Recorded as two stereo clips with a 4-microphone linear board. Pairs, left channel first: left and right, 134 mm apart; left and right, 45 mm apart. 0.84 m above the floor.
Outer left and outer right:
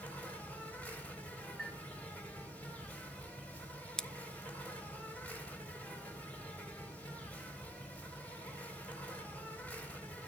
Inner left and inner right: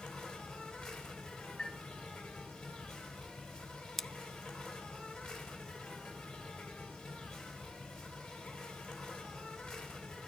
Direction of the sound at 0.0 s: 10° left (ahead or behind).